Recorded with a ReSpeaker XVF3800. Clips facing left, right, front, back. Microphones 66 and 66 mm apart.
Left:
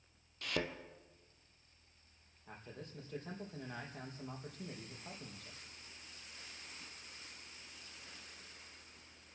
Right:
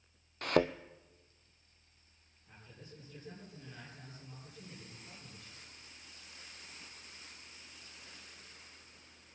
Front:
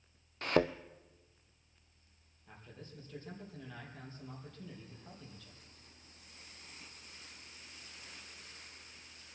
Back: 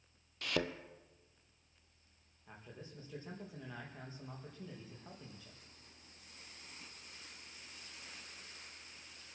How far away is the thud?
About 0.7 m.